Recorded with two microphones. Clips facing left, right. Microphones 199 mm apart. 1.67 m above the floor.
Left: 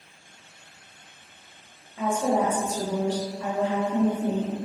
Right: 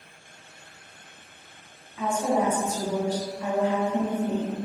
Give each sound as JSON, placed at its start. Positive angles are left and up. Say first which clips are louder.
{"t": 2.0, "sound": "a woman speaking", "louder": "left 1 dB", "side_deg": 50, "distance_m": 1.1}